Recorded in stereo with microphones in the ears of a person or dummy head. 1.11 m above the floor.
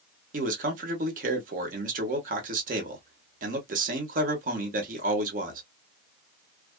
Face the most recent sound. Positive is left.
turn(degrees=-50)  # may be behind; listen again after turning